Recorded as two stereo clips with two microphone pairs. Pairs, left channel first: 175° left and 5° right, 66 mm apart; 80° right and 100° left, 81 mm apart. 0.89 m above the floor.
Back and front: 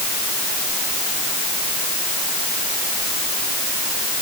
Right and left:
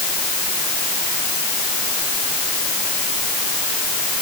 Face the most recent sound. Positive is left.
No sound to turn to.